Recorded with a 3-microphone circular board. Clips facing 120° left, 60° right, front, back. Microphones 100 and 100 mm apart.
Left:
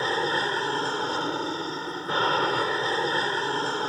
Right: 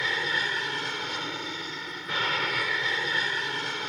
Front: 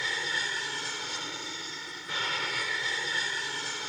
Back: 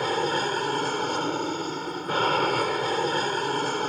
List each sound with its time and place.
0.0 s an aircraft: 165° left